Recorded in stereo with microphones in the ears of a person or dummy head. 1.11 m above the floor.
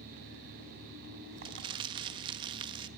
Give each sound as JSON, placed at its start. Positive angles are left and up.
{"t": 0.0, "sound": "an engine running", "side_deg": -55, "distance_m": 8.0}
{"t": 1.4, "sound": "crumpling", "side_deg": -25, "distance_m": 1.5}